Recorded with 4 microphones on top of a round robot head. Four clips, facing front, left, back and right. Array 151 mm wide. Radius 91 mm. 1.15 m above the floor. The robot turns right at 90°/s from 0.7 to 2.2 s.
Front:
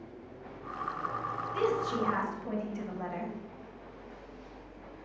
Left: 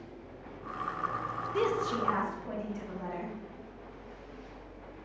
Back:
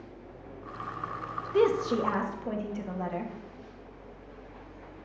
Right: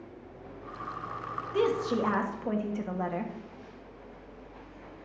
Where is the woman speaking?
170° right, 1.4 m; by 3.3 s 110° right, 1.4 m.